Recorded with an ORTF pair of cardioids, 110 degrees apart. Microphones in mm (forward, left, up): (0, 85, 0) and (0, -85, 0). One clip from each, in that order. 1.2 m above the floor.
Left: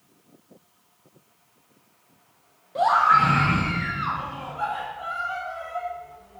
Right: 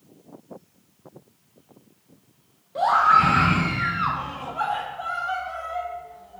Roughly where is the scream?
Ahead.